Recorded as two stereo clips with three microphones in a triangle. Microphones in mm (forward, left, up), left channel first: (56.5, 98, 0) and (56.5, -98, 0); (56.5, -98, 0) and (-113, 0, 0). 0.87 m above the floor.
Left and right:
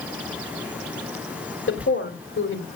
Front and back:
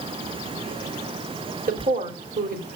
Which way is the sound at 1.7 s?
105° left.